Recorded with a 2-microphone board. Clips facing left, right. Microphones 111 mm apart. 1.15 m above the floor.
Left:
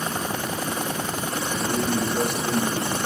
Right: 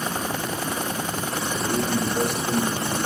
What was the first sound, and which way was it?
A man speaking, 50° left (ahead or behind).